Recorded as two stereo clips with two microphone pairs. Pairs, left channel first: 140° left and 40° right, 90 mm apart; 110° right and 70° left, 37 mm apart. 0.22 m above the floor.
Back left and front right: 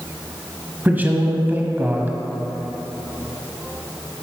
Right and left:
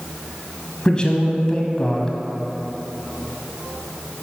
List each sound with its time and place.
0.8 s a man speaking: 85° right, 1.1 m